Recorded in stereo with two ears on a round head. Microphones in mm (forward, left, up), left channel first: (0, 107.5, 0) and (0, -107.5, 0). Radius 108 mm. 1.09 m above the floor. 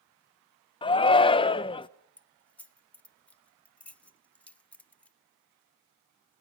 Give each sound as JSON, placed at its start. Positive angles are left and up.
{"t": 0.8, "sound": "a shout", "side_deg": 20, "distance_m": 0.6}
{"t": 2.2, "sound": "keys jangling", "side_deg": 5, "distance_m": 0.6}